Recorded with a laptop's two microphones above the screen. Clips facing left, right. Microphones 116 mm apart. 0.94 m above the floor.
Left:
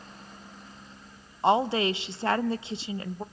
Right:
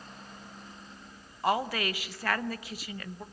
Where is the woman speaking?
25° left (ahead or behind), 0.5 m.